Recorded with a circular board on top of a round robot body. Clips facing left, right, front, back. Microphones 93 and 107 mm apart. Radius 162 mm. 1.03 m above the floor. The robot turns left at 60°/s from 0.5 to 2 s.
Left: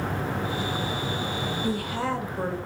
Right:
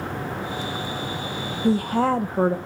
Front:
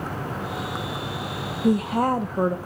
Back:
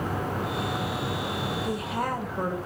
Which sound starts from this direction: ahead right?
A woman speaking, at 1.6 s.